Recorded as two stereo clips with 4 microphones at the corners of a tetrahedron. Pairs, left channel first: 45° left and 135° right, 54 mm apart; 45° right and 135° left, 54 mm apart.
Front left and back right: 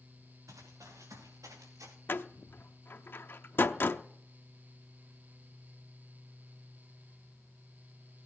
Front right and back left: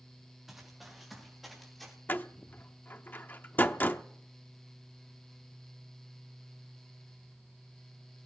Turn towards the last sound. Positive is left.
turn(degrees=5)